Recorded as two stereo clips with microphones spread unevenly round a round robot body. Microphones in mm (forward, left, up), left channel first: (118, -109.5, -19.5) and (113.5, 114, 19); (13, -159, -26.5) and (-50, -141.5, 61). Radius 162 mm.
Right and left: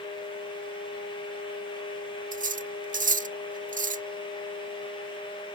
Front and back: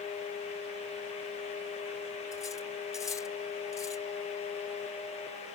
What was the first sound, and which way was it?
Cutlery clinking, 40° left.